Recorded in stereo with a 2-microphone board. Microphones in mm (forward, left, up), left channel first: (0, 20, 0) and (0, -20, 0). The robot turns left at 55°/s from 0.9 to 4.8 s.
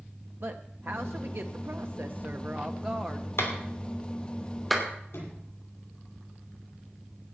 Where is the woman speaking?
60° right, 0.7 m; by 3.3 s 170° left, 0.7 m.